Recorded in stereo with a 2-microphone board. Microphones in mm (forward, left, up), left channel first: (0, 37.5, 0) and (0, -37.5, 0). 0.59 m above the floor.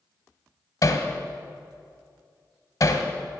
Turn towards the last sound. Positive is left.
turn(degrees=55)  # may be behind; listen again after turning